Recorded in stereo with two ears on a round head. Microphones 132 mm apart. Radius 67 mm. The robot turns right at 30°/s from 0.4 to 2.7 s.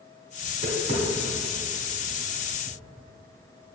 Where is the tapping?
35° right (ahead or behind), 2.5 m; by 2.8 s 75° right (ahead or behind), 2.5 m.